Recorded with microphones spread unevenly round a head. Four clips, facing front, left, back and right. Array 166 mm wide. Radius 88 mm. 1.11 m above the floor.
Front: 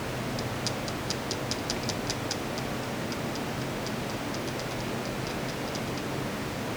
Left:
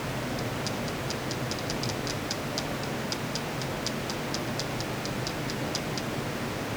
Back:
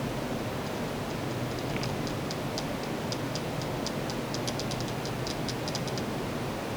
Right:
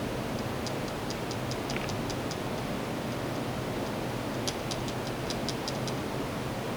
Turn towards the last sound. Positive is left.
No sound to turn to.